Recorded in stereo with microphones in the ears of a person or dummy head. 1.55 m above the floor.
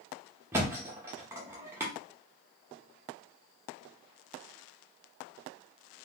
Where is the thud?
15° right (ahead or behind), 0.8 m.